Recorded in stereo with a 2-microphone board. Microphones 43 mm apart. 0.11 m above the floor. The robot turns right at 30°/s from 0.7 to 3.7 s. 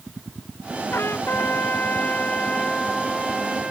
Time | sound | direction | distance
0.9 | a trumpet | 110° left | ?